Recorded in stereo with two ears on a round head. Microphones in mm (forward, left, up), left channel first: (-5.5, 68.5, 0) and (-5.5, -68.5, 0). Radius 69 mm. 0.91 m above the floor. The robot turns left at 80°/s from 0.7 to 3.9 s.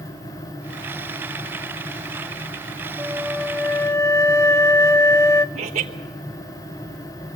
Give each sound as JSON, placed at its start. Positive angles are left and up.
{"t": 3.0, "sound": "a flute", "side_deg": -5, "distance_m": 0.8}
{"t": 5.5, "sound": "laughter", "side_deg": -45, "distance_m": 1.2}